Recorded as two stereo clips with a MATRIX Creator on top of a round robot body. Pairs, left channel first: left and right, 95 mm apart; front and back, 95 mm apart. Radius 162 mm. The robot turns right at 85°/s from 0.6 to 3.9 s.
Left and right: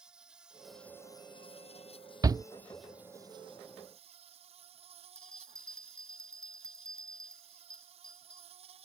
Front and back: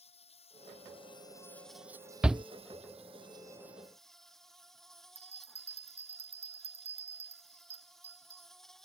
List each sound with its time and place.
0.0 s an insect: 10° right; by 8.9 s 90° right
2.2 s a shout: 110° right; by 2.4 s 90° right
5.2 s a bell: 175° left